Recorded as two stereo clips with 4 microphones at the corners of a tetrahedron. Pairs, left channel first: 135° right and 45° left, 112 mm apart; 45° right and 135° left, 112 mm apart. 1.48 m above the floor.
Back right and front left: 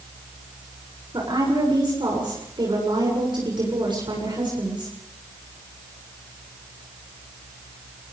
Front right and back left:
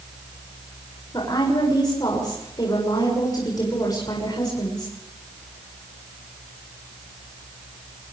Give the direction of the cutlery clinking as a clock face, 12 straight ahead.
I don't hear cutlery clinking.